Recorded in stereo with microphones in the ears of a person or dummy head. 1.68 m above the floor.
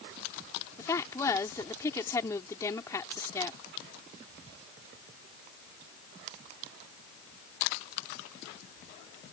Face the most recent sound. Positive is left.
turn(degrees=15)  # may be behind; listen again after turning